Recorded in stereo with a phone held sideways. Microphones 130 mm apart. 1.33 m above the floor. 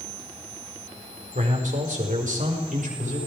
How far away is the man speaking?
About 4.5 m.